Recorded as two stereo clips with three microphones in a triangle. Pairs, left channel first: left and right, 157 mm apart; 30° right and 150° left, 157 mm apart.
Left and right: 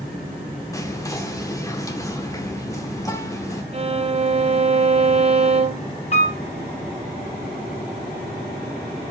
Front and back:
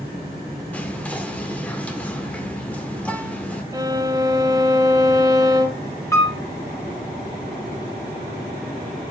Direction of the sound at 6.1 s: 45° left.